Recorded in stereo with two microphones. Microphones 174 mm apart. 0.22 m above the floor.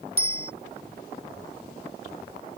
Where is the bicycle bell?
65° right (ahead or behind).